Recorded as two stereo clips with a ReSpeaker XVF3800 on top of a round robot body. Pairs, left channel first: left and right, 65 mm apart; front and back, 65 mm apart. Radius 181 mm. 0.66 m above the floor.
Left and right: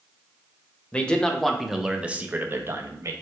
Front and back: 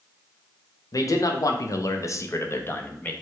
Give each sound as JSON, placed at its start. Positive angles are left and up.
{"t": 0.9, "sound": "a man speaking", "azimuth_deg": 20, "distance_m": 1.1}